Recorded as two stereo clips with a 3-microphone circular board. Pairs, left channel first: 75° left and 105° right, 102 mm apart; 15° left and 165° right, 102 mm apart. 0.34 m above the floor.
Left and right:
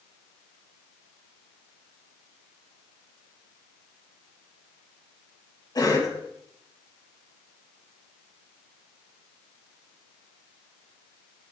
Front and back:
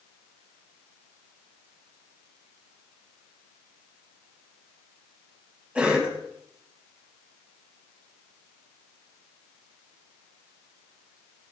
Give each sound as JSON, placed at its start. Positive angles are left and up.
{"t": 5.8, "sound": "a cough", "azimuth_deg": 120, "distance_m": 3.0}